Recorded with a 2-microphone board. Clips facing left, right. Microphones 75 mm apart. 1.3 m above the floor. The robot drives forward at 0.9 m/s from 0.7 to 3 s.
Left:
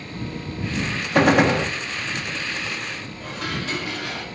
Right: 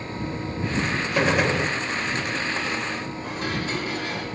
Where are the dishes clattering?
85° left, 5.5 m.